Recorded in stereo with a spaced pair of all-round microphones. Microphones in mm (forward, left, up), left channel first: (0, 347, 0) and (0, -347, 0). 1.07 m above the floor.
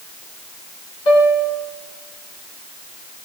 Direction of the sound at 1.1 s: 75° left (ahead or behind).